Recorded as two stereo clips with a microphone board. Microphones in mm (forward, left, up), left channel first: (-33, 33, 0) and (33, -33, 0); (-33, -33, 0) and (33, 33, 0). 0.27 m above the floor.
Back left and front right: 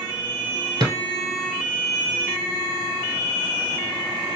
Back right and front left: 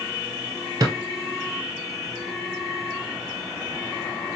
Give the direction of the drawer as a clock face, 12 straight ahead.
12 o'clock.